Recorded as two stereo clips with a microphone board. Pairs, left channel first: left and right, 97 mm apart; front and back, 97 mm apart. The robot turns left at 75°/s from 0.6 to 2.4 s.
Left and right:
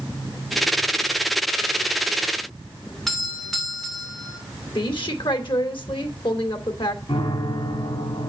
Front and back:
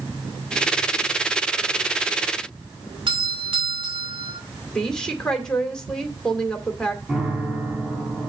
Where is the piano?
95° left, 1.9 m.